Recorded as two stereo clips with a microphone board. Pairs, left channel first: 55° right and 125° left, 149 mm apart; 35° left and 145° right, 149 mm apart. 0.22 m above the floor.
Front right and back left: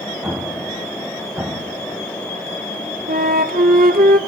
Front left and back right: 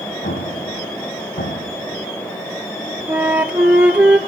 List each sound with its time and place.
0.2 s an explosion: 45° left, 2.5 m
3.1 s a flute: 135° left, 1.2 m